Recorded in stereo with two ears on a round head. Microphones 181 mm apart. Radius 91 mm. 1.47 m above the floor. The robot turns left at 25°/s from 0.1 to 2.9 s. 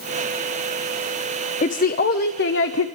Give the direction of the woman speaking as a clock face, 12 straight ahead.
7 o'clock.